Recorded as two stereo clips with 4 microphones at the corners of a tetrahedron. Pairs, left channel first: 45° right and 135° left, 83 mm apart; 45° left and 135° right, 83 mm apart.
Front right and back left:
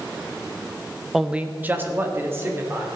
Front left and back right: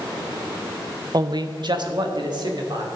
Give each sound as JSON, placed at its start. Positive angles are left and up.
{"t": 1.1, "sound": "a man speaking", "azimuth_deg": -140, "distance_m": 0.6}